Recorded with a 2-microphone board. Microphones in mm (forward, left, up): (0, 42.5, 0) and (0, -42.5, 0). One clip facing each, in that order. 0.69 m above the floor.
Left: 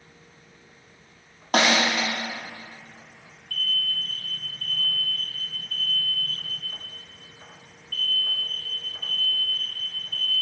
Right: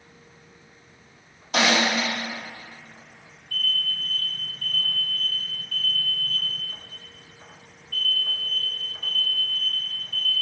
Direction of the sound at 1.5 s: 55° left (ahead or behind).